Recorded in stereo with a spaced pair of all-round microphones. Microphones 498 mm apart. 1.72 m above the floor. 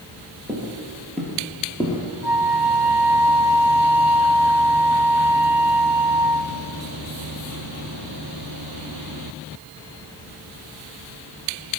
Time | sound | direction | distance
0.5 | footsteps | 5° right (ahead or behind) | 2 m
2.2 | a flute | 40° left (ahead or behind) | 0.8 m